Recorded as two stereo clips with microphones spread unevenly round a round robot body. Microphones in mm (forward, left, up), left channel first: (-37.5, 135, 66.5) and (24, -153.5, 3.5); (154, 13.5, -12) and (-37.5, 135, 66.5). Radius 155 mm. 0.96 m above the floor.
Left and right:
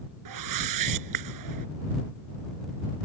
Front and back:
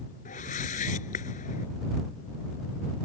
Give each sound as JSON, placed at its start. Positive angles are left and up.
{"t": 0.2, "sound": "a whoosh", "azimuth_deg": -105}